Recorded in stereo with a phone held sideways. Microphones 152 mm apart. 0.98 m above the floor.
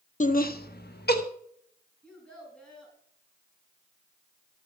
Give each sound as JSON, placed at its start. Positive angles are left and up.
{"t": 0.2, "sound": "laughter", "side_deg": 50, "distance_m": 1.0}
{"t": 2.0, "sound": "a child speaking", "side_deg": 5, "distance_m": 5.5}